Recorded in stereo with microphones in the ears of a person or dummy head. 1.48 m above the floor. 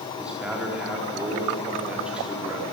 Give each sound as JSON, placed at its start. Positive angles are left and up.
{"t": 0.2, "sound": "a man speaking", "side_deg": -10, "distance_m": 4.0}